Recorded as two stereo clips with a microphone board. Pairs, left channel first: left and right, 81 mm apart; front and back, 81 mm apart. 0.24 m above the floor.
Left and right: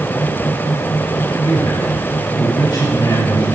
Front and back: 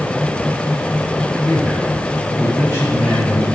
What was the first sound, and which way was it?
A man speaking, 105° left.